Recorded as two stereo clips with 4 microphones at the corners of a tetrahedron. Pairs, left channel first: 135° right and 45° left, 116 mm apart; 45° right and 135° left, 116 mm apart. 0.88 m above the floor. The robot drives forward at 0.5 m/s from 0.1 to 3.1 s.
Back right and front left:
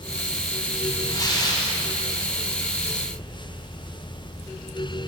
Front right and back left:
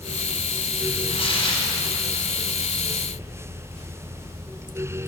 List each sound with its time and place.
1.1 s tearing paper: 80° right, 2.5 m; by 1.7 s 85° right, 2.5 m